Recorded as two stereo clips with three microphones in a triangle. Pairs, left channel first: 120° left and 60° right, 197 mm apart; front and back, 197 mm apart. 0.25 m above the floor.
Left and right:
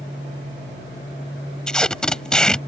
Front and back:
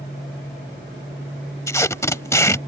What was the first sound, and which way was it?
Tape being pulled, 40° left.